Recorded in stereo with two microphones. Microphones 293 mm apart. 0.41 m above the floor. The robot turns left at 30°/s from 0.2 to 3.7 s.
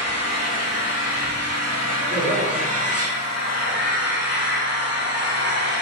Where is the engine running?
160° left, 1.0 m; by 5.8 s 55° left, 1.0 m.